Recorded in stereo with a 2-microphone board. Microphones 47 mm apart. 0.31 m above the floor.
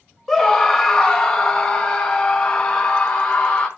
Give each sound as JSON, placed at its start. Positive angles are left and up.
{"t": 0.3, "sound": "a scream", "side_deg": 0, "distance_m": 1.5}